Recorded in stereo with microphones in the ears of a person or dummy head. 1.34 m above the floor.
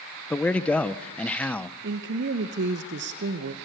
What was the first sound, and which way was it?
A man speaking, 5° left (ahead or behind).